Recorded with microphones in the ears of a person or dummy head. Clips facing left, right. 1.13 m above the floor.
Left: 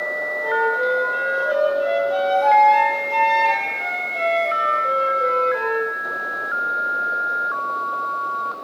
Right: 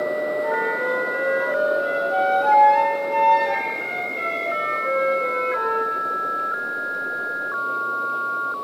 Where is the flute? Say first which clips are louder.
Left 2 dB; 55° left (ahead or behind), 1.8 m.